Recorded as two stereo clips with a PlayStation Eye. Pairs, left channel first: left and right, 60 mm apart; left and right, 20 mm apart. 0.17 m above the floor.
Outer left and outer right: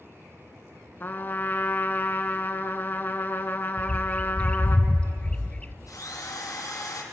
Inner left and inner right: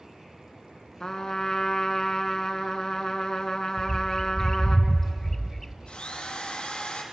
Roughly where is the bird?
Centre.